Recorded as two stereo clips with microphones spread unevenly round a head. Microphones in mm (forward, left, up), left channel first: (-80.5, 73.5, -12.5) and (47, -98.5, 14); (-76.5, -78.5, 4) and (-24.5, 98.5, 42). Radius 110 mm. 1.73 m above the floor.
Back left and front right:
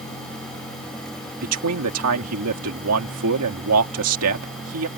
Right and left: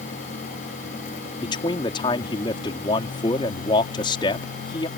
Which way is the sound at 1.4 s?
35° right.